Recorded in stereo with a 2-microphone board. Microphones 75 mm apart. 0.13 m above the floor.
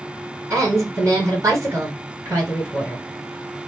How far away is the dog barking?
I don't hear a dog barking.